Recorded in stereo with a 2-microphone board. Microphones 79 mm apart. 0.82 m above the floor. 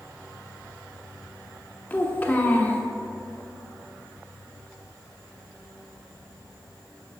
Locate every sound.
1.9 s a child speaking: 25° left (ahead or behind), 1.3 m